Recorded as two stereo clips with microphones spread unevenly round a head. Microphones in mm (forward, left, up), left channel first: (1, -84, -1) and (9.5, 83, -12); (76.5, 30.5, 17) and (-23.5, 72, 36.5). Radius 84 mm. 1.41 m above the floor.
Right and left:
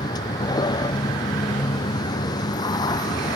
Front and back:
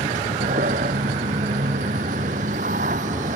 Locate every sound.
0.0 s a vehicle: 160° right